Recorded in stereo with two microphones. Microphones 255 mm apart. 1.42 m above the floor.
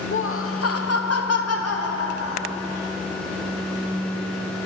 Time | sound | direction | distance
0.1 | laughter | 50° left (ahead or behind) | 1.0 m